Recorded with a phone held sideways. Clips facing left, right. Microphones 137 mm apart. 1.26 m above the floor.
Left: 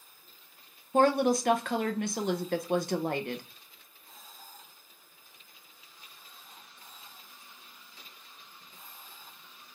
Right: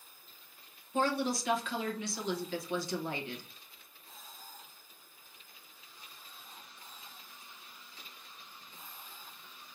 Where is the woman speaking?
65° left (ahead or behind), 0.7 m.